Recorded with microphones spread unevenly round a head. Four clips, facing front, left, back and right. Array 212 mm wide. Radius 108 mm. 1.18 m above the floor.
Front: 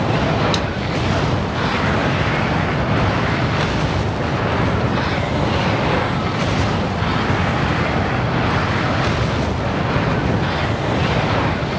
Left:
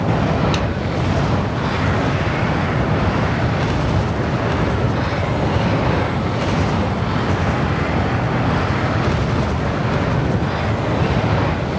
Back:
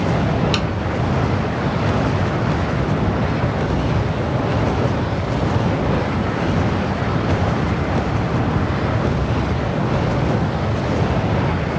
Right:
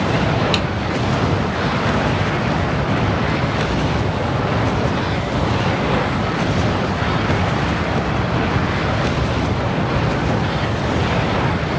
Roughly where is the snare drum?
Behind right.